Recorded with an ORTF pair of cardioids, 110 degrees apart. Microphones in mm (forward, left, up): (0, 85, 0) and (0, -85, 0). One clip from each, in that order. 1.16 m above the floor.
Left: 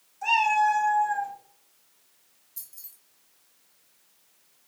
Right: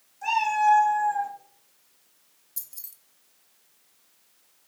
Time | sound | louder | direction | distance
0.2 | a cat meowing | even | 10° left | 2 m
2.6 | keys jangling | right 4 dB | 30° right | 0.7 m